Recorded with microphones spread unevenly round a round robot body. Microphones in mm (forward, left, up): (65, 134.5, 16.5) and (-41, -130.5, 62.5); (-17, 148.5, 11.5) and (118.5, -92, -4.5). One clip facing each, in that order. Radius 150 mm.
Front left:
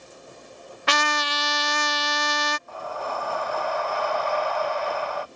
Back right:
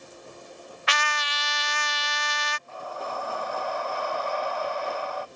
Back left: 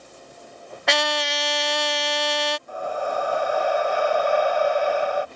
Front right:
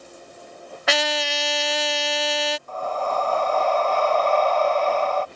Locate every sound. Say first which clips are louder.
0.9 s a trumpet: front left 8 dB, even; 25° left
2.7 s breathing: front left 3 dB, even; 40° left